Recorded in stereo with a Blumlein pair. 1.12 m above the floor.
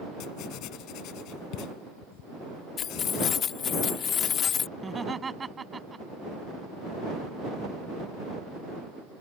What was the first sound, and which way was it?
Writing, 40° left.